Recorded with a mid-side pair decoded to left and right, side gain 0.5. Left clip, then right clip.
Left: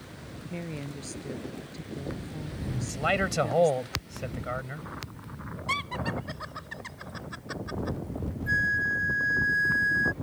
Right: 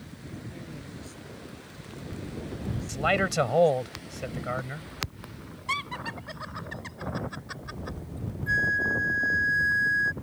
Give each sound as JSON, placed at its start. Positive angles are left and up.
{"t": 0.5, "sound": "a woman speaking", "azimuth_deg": 55}
{"t": 2.9, "sound": "a man speaking", "azimuth_deg": -10}
{"t": 5.7, "sound": "laughter", "azimuth_deg": 0}
{"t": 8.5, "sound": "a flute", "azimuth_deg": -5}